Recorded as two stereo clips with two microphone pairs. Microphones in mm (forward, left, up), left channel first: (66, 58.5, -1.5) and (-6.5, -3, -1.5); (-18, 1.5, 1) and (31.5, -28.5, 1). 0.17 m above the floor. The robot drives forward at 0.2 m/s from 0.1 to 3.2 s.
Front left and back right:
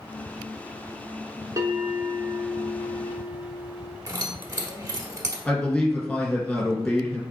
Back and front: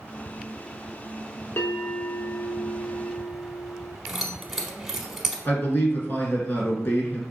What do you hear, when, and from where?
1.6 s a bell: 175° left, 0.7 m
4.1 s keys jangling: 110° right, 0.8 m
5.5 s a man speaking: 115° left, 2.0 m